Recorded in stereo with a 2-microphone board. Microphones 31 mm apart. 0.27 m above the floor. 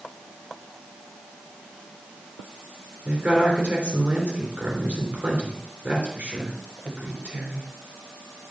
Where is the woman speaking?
55° right (ahead or behind), 3 m.